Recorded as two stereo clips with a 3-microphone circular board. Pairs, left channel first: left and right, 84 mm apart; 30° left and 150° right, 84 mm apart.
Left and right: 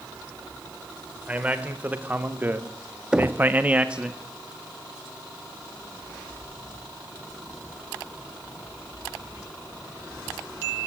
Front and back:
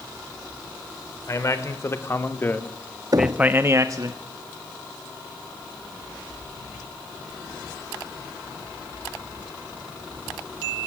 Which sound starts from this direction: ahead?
A man speaking, at 1.3 s.